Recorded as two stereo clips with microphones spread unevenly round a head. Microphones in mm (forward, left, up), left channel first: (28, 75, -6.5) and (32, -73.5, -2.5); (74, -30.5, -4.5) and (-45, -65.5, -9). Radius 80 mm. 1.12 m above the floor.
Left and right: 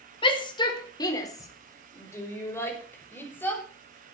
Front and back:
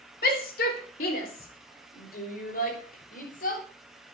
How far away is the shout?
About 3.5 m.